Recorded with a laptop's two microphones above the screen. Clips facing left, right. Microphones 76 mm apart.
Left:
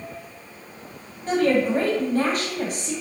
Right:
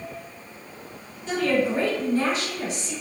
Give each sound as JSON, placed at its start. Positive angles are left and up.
{"t": 1.3, "sound": "a woman speaking", "side_deg": 45, "distance_m": 1.2}